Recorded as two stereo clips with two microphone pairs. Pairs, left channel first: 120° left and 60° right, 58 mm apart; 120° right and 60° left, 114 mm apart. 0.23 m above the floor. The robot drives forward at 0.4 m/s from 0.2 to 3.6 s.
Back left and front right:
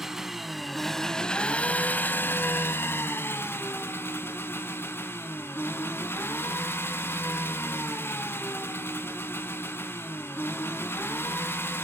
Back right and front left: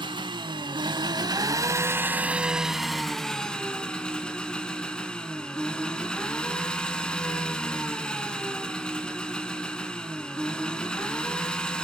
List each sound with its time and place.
0.0 s an engine running: 25° left, 0.8 m; by 11.8 s 160° left, 0.9 m